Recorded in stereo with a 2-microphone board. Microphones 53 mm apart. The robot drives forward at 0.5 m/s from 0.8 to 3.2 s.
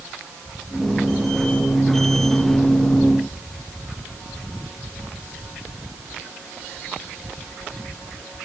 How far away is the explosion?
No explosion in this recording.